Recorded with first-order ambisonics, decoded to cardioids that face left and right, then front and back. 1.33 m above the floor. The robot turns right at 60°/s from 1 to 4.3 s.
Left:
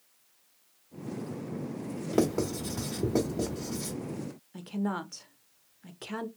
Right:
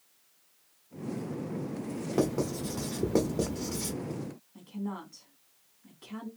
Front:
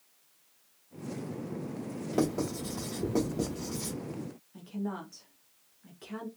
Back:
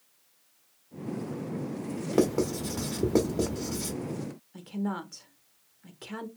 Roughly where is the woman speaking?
Behind left.